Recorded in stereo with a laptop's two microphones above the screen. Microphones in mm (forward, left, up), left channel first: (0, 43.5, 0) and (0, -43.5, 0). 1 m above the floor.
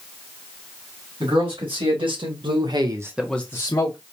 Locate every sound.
1.2 s a man speaking: 80° right, 2.5 m; by 4.0 s 50° left (ahead or behind), 1.2 m